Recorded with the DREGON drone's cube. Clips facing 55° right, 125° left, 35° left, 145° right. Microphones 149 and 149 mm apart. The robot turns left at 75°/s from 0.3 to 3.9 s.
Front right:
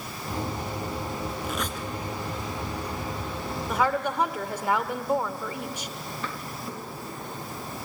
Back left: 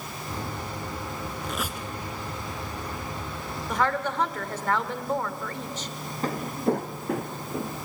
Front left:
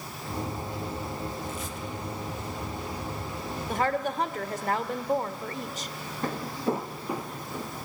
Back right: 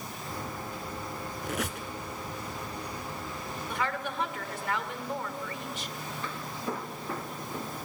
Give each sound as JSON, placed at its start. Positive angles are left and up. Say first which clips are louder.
{"t": 1.4, "sound": "a squeak", "louder": "front right 1 dB, back right 1 dB", "azimuth_deg": -135, "distance_m": 1.9}
{"t": 3.7, "sound": "a woman speaking", "louder": "front right 1 dB, front left 6 dB", "azimuth_deg": 30, "distance_m": 1.2}
{"t": 6.2, "sound": "footsteps", "louder": "back left 14 dB, front left 9 dB", "azimuth_deg": 75, "distance_m": 1.3}